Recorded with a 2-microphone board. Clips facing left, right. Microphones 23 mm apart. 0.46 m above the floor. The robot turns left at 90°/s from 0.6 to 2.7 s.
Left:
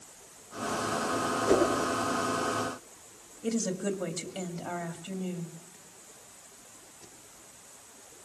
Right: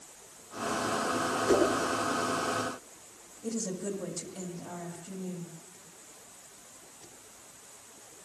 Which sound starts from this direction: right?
A whoosh, at 1.5 s.